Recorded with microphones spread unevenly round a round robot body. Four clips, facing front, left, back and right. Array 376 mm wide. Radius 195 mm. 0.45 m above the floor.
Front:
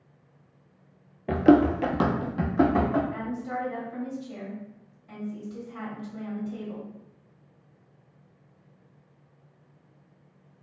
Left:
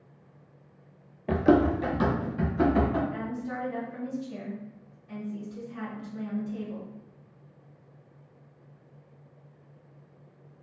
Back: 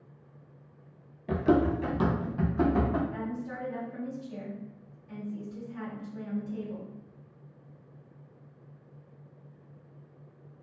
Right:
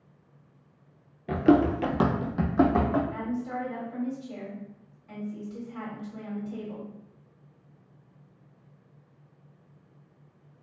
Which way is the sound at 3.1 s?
40° right.